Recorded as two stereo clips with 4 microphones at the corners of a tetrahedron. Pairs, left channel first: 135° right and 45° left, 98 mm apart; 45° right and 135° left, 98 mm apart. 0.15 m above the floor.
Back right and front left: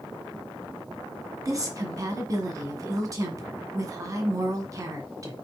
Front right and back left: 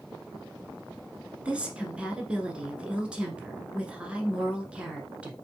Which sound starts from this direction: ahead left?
A woman speaking, at 1.4 s.